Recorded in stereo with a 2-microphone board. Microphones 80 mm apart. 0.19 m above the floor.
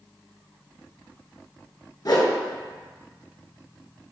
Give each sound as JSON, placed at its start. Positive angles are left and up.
{"t": 2.0, "sound": "a whoosh", "side_deg": 55, "distance_m": 0.8}